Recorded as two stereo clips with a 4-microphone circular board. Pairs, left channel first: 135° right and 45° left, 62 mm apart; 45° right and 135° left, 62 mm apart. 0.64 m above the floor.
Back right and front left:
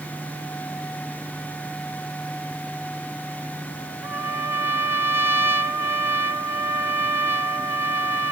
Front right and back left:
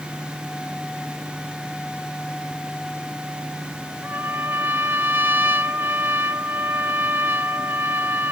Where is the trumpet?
85° left, 1.6 m.